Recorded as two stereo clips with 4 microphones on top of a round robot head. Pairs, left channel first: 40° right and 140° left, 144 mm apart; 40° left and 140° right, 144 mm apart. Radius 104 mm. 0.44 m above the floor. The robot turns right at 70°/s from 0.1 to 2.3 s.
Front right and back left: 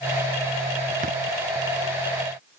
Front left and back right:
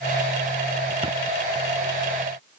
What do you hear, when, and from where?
1.0 s a thud: 170° left; by 1.2 s straight behind